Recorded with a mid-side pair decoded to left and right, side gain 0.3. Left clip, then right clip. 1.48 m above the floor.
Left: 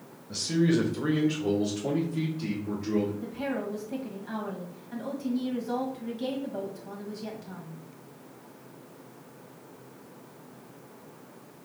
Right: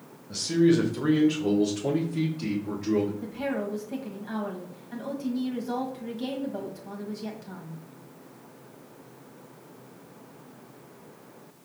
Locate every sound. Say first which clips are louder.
0.3 s a man speaking: right 4 dB; straight ahead, 1.1 m; by 3.1 s 50° right, 1.9 m
3.2 s a woman speaking: right 2 dB; 20° right, 1.5 m